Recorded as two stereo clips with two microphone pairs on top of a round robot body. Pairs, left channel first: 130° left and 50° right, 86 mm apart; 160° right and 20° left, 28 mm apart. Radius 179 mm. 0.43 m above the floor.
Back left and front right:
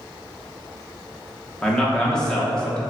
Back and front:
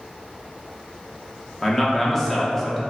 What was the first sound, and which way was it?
A man speaking, 155° right.